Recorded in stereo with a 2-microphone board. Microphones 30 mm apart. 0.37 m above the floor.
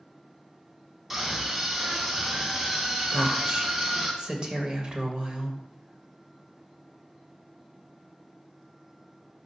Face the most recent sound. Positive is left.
turn(degrees=-35)  # may be behind; listen again after turning